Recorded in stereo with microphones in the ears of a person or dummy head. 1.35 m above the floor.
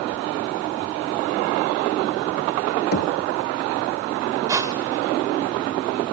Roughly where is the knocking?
Left.